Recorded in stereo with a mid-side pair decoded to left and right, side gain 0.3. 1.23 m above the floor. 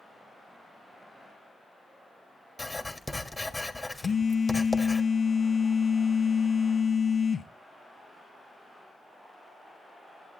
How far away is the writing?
About 1.5 m.